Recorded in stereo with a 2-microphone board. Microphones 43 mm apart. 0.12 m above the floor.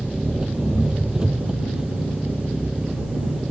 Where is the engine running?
20° right (ahead or behind).